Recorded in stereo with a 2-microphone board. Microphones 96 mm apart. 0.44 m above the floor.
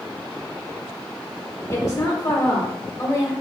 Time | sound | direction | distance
1.7 | a woman speaking | 30° left (ahead or behind) | 1.1 m